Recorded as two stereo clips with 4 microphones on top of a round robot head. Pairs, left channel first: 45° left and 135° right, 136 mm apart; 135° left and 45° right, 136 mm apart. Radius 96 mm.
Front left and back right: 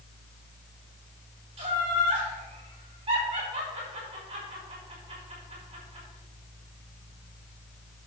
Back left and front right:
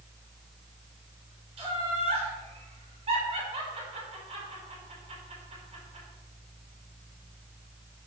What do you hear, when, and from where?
1.6 s laughter: 90° right, 5 m